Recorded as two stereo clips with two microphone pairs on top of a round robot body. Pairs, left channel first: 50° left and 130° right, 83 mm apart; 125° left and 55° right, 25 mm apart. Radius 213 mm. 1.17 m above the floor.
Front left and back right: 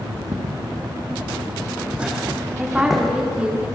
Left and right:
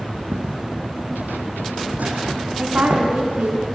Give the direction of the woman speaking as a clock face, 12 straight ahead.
2 o'clock.